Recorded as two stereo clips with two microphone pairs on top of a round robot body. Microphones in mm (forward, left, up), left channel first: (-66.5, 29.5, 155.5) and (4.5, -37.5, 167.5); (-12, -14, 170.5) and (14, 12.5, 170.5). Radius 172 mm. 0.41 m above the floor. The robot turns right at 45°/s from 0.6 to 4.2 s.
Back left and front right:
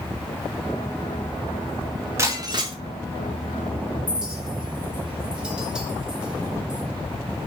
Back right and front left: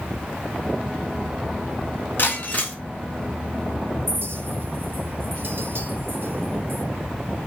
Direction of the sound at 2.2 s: 105° right.